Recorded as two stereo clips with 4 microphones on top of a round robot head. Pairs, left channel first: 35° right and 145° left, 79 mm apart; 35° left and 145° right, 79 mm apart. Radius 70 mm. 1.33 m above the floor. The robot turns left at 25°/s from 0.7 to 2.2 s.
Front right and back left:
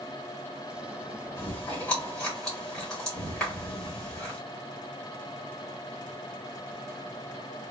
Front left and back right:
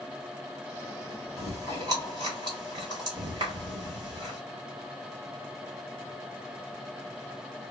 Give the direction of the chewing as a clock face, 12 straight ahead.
3 o'clock.